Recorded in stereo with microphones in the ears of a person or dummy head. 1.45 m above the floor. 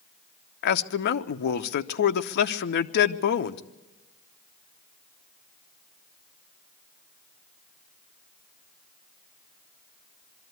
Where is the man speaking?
55° left (ahead or behind), 0.8 m.